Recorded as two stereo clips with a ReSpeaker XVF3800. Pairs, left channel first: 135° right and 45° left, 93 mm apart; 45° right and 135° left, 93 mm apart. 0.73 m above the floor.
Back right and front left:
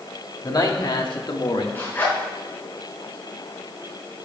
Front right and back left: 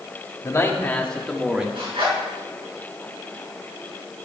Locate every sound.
0.4 s a man speaking: 100° right, 1.7 m; by 1.6 s 145° right, 1.8 m
1.8 s a zipper: 155° left, 4.5 m